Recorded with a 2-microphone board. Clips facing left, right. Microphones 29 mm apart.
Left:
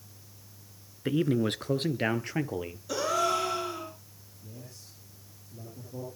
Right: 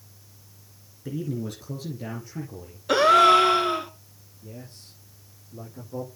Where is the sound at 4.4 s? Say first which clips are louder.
Right 5 dB; 35° right (ahead or behind), 7.5 m.